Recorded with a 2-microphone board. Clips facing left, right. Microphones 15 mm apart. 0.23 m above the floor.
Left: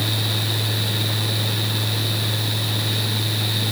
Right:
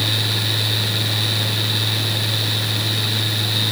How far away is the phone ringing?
I don't hear a phone ringing.